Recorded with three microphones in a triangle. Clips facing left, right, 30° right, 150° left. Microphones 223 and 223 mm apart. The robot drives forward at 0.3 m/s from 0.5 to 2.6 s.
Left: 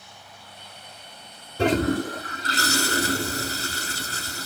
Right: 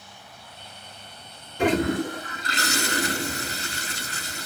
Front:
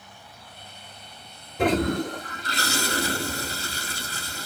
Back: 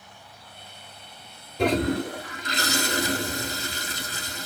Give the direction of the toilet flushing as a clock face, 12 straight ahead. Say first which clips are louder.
Left 1 dB, even; 10 o'clock.